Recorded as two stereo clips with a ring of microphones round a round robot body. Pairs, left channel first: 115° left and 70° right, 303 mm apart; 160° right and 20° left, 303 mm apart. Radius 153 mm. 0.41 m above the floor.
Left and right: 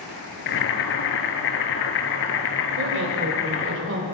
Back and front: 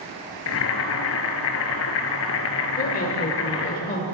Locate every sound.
0.5 s boiling: 160° left, 1.2 m
2.8 s a woman speaking: 105° right, 1.4 m